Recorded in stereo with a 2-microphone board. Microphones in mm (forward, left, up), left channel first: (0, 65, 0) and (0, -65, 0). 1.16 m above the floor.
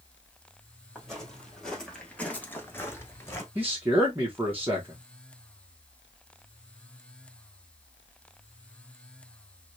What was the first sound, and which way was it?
Footsteps, centre (ahead or behind).